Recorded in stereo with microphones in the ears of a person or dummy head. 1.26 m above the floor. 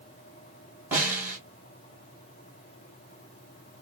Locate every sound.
0.9 s a snare drum: 10° right (ahead or behind), 2.0 m